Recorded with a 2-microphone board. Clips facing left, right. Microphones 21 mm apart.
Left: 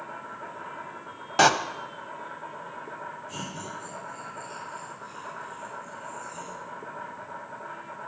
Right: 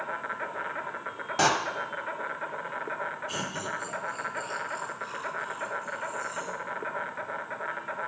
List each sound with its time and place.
0.0 s an insect: 70° right (ahead or behind), 1.0 m
1.4 s a door slam: 30° left (ahead or behind), 0.7 m
3.3 s laughter: 65° right (ahead or behind), 3.5 m